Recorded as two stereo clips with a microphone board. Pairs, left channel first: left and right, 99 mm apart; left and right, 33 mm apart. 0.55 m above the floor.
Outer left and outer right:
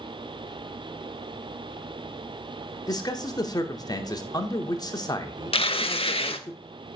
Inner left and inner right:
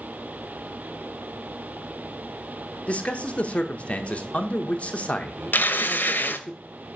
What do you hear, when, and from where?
2.9 s a man speaking: 45° left (ahead or behind), 0.9 m
5.5 s tearing paper: 80° left, 0.7 m